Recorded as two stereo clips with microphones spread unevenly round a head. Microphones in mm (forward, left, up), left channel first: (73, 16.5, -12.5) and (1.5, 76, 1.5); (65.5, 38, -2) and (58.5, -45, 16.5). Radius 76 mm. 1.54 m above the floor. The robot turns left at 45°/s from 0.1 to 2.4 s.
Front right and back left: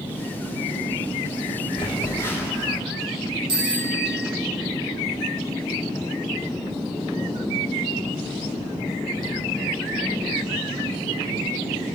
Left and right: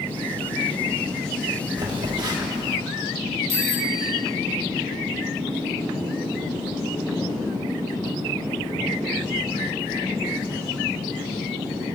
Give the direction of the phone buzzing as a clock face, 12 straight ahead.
3 o'clock.